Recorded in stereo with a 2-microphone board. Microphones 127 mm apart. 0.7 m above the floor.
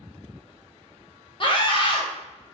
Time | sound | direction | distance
1.4 | a scream | 40° left (ahead or behind) | 0.9 m